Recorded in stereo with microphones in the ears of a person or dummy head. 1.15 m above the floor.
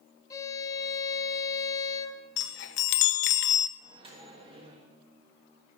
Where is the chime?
60° left (ahead or behind), 0.5 m.